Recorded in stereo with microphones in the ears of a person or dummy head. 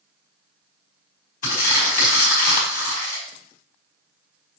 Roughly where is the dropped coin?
I don't hear a dropped coin.